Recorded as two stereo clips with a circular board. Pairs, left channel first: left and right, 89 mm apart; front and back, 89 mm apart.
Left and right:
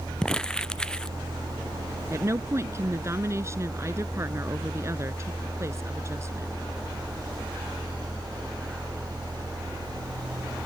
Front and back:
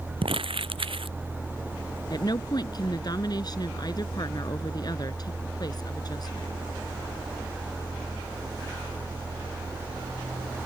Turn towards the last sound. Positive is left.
turn(degrees=-35)